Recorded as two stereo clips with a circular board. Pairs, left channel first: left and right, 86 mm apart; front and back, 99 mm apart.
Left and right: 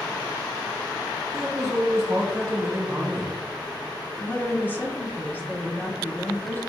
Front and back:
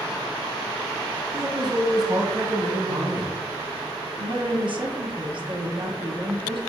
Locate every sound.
1.3 s a man speaking: 140° right, 1.0 m
4.2 s a woman speaking: 155° left, 1.1 m